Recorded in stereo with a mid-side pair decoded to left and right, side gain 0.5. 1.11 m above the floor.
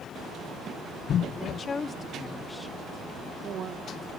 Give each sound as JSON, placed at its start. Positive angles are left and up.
{"t": 1.3, "sound": "a woman speaking", "azimuth_deg": 55, "distance_m": 2.5}